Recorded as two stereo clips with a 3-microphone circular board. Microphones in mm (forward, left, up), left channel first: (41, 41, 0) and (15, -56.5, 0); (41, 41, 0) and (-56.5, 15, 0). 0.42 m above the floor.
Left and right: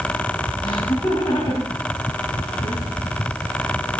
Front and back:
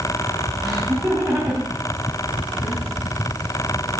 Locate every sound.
0.6 s laughter: 110° left, 3.5 m